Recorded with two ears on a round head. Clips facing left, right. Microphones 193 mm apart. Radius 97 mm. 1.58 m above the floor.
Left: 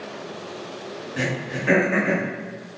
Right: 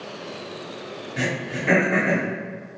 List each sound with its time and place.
1.2 s throat clearing: 15° left (ahead or behind), 1.0 m